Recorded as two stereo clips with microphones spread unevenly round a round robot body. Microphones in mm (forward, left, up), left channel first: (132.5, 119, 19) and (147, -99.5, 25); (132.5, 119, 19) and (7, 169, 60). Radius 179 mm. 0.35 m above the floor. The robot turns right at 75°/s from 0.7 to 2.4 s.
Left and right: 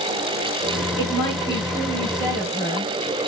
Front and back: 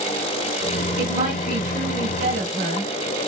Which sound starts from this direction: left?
A woman speaking, at 1.0 s.